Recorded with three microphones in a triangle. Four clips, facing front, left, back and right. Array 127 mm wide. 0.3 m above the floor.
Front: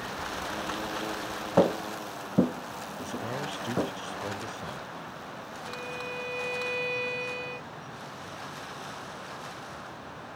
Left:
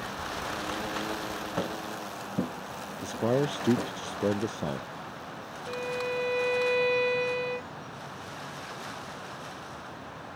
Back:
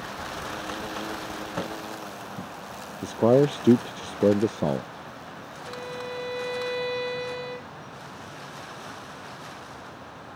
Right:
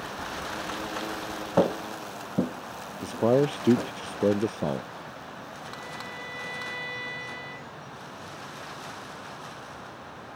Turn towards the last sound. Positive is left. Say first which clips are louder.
# left 11 dB, back 4 dB
turn(degrees=105)